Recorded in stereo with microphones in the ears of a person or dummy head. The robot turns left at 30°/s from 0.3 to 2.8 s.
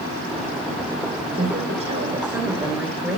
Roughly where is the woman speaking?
Behind right.